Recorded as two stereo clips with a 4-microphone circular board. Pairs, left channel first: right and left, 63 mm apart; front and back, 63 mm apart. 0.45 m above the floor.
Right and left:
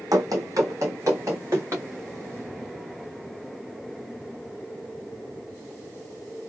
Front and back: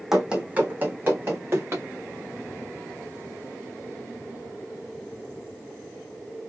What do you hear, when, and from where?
0.1 s running footsteps: 95° left, 0.9 m; by 1.9 s 135° left, 2 m